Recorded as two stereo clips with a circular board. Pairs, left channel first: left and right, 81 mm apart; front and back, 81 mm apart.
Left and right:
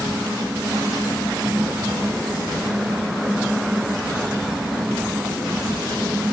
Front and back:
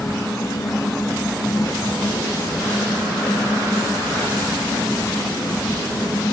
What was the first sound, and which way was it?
Only background noise.